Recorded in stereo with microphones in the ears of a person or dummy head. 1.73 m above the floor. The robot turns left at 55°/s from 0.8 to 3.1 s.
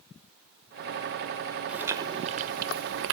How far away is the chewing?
About 0.5 m.